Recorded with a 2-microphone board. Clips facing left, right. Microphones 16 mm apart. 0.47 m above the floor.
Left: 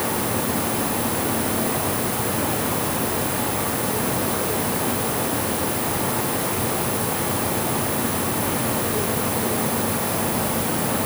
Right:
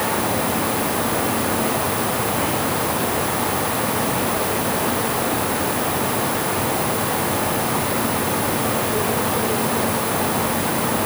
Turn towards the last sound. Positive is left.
No sound to turn to.